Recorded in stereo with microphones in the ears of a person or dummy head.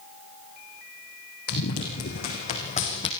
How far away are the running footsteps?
About 4.5 m.